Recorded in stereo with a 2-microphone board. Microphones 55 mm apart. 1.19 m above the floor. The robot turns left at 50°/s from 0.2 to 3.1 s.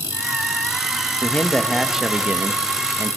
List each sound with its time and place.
1.2 s a man speaking: 30° left, 1.1 m; by 3.2 s 65° right, 1.1 m